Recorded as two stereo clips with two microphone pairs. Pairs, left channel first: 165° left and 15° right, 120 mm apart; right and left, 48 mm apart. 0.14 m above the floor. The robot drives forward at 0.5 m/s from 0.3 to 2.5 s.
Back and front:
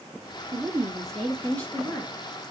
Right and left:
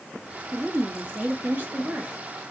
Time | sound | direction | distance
0.5 | a woman speaking | 65° left | 1.5 m